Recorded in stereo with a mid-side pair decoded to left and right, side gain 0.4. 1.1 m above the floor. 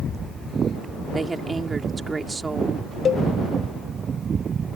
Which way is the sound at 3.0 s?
55° left.